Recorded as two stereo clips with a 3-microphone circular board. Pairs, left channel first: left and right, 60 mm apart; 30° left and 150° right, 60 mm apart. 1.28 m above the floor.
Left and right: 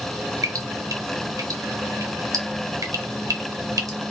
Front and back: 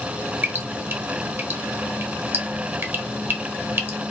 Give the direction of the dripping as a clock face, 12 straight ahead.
3 o'clock.